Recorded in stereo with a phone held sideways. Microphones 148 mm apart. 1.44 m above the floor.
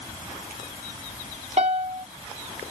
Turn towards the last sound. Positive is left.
turn(degrees=-45)  # may be behind; listen again after turning